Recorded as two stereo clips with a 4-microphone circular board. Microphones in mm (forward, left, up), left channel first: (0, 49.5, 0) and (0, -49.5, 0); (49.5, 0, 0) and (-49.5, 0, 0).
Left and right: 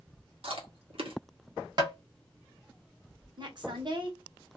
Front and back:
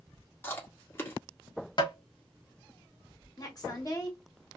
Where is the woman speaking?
50° right, 1.2 m.